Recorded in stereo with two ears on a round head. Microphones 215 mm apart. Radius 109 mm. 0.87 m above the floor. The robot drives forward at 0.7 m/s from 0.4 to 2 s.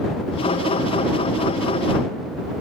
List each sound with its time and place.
Only background noise.